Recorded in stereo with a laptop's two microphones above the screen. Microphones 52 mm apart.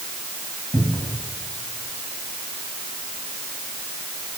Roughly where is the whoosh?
I don't hear a whoosh.